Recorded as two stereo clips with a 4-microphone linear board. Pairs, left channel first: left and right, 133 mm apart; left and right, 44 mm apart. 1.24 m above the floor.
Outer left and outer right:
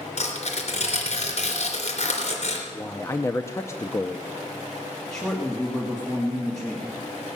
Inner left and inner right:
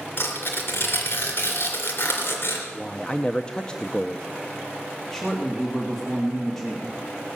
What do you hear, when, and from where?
0.2 s tearing paper: 55° left (ahead or behind), 3 m
2.7 s a man speaking: 20° left (ahead or behind), 0.6 m
5.1 s a man speaking: 5° left (ahead or behind), 2 m